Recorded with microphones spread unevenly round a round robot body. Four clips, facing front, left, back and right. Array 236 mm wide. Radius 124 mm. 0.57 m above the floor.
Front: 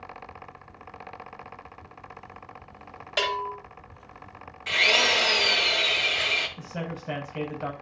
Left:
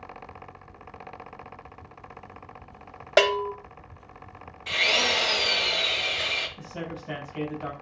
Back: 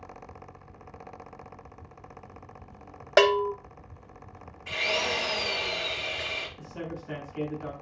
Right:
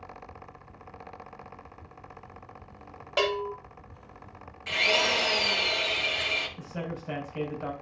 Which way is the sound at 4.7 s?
Straight ahead.